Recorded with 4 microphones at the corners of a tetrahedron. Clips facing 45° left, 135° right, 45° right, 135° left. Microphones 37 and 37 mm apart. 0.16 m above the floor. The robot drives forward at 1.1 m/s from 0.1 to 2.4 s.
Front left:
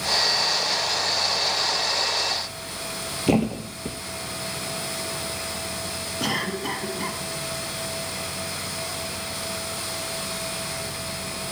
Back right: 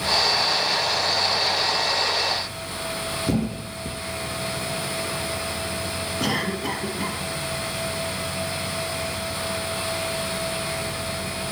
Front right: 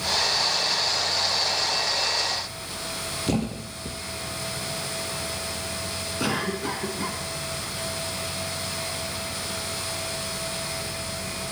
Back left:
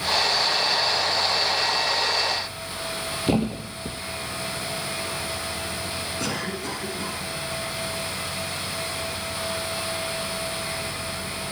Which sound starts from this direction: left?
A thud, at 3.3 s.